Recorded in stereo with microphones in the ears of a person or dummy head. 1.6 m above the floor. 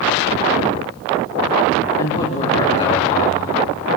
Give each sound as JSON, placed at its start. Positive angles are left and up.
{"t": 2.0, "sound": "a man speaking", "side_deg": 35, "distance_m": 3.0}